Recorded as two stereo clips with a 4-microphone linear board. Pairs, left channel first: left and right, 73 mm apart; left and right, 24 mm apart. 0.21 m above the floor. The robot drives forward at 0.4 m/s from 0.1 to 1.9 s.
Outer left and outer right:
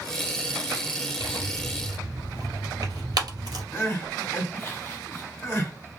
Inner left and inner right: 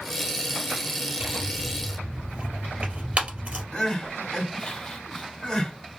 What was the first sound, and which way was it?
Tearing paper, 70° right (ahead or behind).